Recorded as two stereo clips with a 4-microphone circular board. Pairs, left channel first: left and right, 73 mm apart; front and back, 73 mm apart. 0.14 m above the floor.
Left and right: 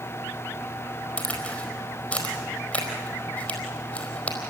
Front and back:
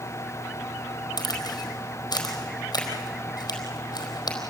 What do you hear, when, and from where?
1.2 s a crack: 20° left, 4.5 m